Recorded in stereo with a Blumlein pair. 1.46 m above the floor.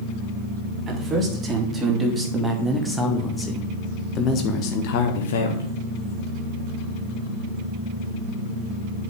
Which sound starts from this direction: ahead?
A man speaking, at 0.9 s.